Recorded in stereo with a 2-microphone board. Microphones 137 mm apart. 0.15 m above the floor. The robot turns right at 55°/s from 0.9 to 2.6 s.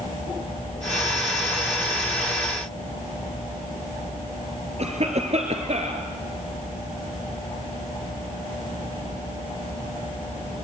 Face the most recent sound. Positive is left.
turn(degrees=-50)  # may be behind; listen again after turning